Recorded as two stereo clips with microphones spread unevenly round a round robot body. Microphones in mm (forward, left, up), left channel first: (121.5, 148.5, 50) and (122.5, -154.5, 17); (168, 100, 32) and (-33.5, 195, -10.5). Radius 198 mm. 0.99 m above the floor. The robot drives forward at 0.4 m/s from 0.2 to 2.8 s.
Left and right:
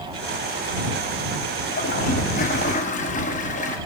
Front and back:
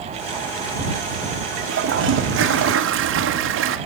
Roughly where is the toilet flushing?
Behind left.